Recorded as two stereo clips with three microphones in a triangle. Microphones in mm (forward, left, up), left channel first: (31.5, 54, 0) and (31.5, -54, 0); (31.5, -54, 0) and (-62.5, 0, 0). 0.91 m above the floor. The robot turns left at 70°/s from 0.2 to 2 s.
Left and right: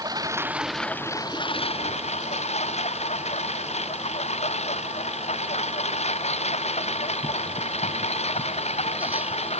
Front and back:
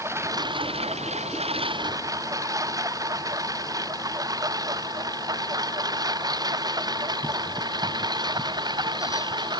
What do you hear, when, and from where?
0.0 s a lawn mower: 145° right; by 9.6 s 100° left